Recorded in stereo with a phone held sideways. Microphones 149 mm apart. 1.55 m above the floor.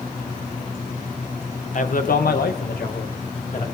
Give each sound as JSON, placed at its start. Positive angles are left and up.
{"t": 1.8, "sound": "a man speaking", "side_deg": 55, "distance_m": 1.5}